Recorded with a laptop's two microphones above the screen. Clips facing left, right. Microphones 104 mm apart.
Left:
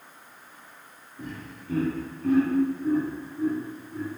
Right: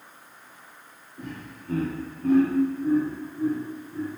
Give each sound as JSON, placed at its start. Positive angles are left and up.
{"t": 1.2, "sound": "laughter", "side_deg": -60, "distance_m": 1.1}